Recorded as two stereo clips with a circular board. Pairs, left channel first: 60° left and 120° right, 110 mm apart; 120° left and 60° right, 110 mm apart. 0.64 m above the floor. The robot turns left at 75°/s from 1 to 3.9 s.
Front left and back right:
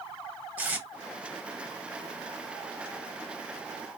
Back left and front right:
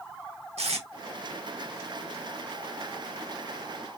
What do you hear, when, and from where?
0.6 s tape being pulled: 45° right, 1.1 m